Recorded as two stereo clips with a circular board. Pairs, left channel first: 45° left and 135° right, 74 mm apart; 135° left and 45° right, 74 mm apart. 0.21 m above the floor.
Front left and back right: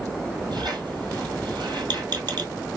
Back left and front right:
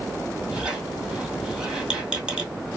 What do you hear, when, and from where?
0.5 s a squeak: 120° right, 1.8 m